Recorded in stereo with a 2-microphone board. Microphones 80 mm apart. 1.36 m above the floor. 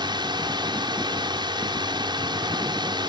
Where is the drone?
70° right (ahead or behind).